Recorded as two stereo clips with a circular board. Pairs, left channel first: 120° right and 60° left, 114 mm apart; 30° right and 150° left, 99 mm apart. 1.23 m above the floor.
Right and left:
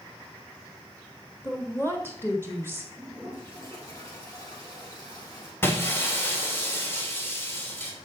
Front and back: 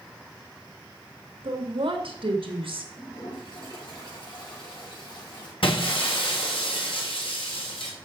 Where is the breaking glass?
50° right, 3 m.